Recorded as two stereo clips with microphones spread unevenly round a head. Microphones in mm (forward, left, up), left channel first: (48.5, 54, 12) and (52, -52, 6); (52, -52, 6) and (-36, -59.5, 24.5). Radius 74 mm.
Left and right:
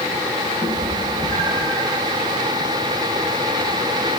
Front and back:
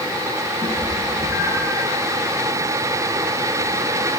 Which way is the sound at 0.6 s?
40° left.